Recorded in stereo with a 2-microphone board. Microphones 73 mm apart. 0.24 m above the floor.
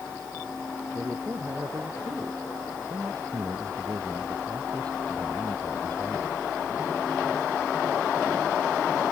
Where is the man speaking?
40° right (ahead or behind); by 6.4 s 65° right (ahead or behind).